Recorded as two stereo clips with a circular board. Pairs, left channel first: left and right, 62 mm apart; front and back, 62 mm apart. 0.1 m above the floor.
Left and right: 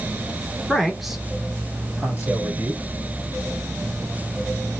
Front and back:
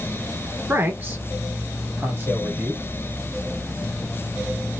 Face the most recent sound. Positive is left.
turn(degrees=-135)